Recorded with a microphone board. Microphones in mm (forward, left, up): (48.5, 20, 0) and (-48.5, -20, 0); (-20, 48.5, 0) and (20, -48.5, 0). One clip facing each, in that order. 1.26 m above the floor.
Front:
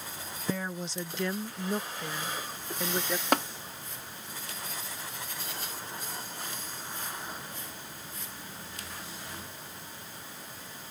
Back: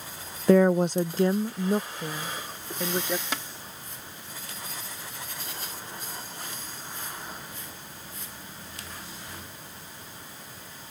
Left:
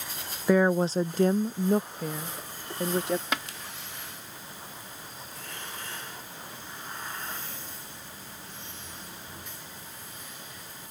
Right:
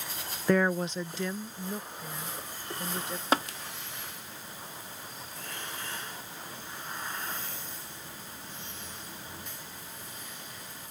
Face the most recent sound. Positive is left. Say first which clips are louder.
# front 8 dB, right 5 dB
turn(degrees=-15)